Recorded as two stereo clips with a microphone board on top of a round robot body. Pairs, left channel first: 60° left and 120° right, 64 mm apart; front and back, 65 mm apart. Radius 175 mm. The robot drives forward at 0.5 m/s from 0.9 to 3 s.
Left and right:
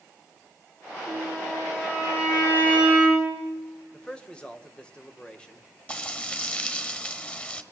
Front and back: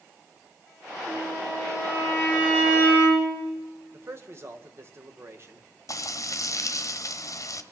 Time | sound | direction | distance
1.1 | a violin | 110° left | 8 m
3.9 | a man speaking | 135° left | 1.8 m
5.9 | frying | 5° right | 1.3 m